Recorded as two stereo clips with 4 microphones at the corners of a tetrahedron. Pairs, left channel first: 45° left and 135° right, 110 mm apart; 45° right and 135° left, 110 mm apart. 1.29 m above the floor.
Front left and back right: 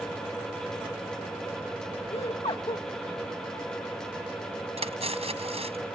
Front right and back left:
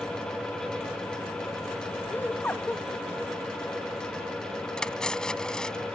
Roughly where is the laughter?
Ahead left.